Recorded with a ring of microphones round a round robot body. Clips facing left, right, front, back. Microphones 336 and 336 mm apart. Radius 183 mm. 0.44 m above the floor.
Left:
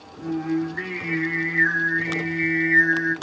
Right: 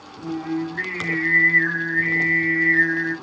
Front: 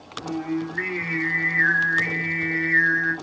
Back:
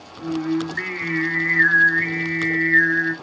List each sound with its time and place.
0.2 s singing: 155° left, 1.8 m